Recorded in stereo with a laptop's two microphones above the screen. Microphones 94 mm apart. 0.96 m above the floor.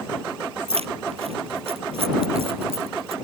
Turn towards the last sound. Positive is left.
turn(degrees=-85)